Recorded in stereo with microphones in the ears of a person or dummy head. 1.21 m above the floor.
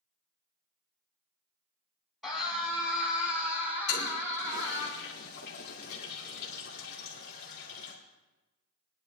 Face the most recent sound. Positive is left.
turn(degrees=60)  # may be behind; listen again after turning